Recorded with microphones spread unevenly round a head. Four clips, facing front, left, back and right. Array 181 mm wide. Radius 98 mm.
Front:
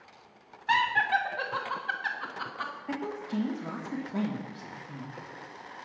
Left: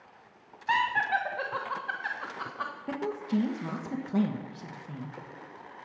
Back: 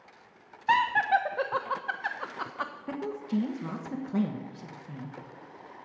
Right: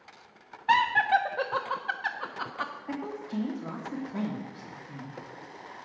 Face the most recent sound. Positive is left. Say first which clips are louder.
# left 4 dB, back 2 dB
turn(degrees=135)